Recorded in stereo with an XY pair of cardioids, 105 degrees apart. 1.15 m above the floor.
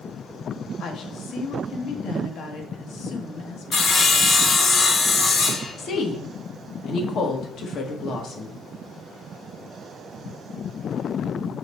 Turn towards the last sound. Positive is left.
turn(degrees=65)